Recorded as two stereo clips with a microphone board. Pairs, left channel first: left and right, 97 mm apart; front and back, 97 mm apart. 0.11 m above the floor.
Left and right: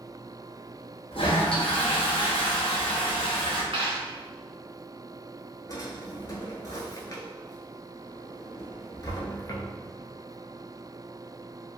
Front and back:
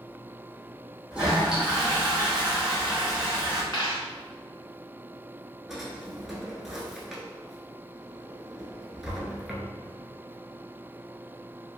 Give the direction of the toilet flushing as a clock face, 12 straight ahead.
9 o'clock.